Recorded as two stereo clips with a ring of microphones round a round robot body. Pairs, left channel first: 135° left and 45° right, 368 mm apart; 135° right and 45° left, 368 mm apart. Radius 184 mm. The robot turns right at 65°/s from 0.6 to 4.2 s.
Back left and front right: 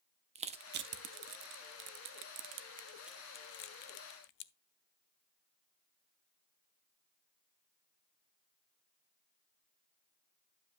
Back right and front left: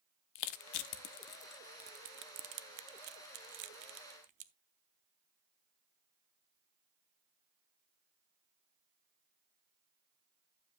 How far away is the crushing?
About 0.7 m.